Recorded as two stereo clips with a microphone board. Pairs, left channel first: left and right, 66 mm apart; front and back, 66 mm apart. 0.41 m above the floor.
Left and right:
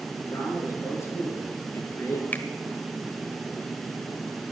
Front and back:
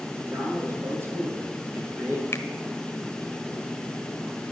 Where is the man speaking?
135° left, 7.5 m; by 2.2 s 125° left, 4.5 m.